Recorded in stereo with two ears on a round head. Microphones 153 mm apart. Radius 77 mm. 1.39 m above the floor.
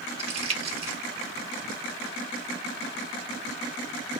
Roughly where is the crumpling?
Right.